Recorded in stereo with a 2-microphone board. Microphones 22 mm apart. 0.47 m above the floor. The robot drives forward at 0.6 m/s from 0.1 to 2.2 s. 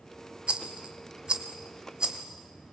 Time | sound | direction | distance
0.5 | a rattle | 55° right (ahead or behind) | 1.4 m